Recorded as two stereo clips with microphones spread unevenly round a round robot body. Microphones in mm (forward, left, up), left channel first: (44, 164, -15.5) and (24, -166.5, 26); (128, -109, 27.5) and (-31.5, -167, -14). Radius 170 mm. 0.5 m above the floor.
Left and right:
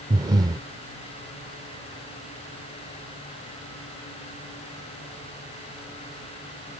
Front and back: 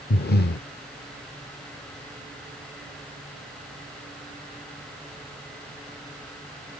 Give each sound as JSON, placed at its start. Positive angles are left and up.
{"t": 0.1, "sound": "breathing", "azimuth_deg": -10}